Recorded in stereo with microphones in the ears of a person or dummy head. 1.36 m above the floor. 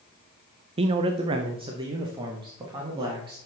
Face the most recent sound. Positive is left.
turn(degrees=-25)  # may be behind; listen again after turning